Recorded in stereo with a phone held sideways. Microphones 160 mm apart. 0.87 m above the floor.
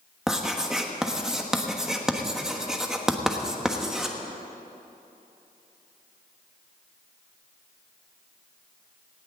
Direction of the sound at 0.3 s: 5° right (ahead or behind).